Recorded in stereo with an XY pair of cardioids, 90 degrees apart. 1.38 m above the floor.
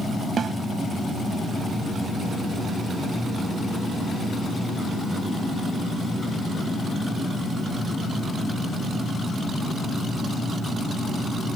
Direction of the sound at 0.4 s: 55° right.